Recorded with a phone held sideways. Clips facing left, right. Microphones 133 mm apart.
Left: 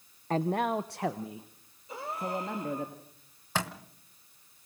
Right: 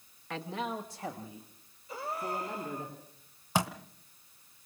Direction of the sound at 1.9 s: 25° left (ahead or behind).